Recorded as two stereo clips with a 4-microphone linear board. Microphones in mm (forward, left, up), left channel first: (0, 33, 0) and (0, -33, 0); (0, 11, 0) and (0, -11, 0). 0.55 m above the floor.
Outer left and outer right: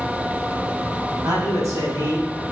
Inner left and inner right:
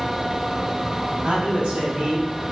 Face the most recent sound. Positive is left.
turn(degrees=-45)  # may be behind; listen again after turning